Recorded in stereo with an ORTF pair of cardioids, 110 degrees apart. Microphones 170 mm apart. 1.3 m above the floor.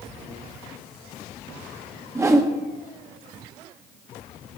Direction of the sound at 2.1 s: 15° right.